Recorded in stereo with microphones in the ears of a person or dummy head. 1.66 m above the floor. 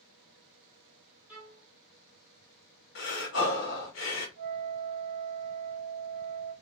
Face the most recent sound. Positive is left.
turn(degrees=-60)  # may be behind; listen again after turning